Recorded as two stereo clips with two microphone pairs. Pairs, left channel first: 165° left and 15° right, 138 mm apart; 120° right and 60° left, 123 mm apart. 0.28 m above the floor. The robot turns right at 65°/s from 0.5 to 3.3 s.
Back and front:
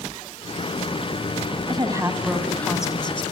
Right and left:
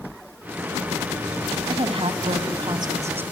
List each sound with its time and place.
1.7 s a woman speaking: 30° left, 1.9 m; by 3.2 s 130° left, 1.9 m